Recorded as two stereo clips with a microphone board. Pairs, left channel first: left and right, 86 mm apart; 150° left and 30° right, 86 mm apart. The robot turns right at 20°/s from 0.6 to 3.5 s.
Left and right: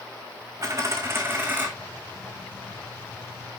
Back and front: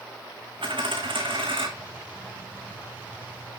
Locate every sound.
0.6 s a dropped coin: 40° right, 3 m; by 1.7 s 20° right, 3 m